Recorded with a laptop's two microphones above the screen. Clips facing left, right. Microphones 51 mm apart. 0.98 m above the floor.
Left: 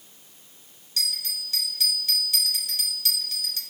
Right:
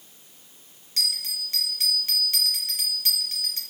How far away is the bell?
About 1.0 m.